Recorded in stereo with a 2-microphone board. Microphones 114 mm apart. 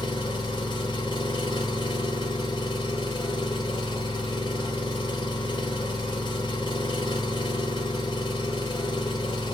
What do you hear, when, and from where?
0.0 s an engine running: 45° left (ahead or behind), 2.5 m